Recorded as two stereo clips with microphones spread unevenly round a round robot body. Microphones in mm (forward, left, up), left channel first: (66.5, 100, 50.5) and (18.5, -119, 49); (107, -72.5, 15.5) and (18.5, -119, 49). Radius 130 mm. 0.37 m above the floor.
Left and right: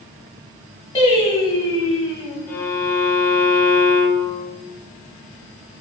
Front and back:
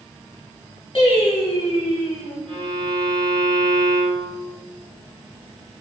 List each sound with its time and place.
0.9 s singing: 10° left, 1.7 m
2.5 s a violin: 155° left, 0.8 m